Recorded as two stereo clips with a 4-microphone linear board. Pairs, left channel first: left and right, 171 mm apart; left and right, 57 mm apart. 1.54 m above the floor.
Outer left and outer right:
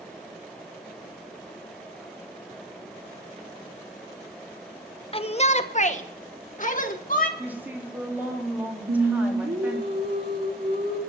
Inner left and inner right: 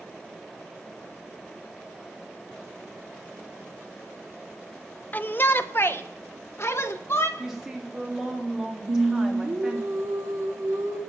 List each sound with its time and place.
5.1 s a shout: 35° left (ahead or behind), 0.8 m; by 7.3 s 55° left (ahead or behind), 1.9 m
7.4 s a woman speaking: 10° right (ahead or behind), 3.5 m
8.9 s singing: 90° right, 3 m